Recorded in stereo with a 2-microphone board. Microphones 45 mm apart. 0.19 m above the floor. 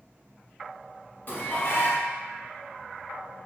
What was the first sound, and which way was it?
Dishes clattering, 45° left (ahead or behind).